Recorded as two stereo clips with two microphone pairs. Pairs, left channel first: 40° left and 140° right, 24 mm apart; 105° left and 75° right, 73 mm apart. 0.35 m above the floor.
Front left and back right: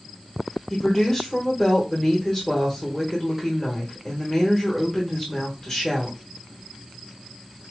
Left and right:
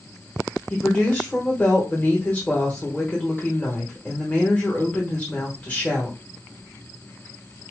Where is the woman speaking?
70° left, 1.1 m.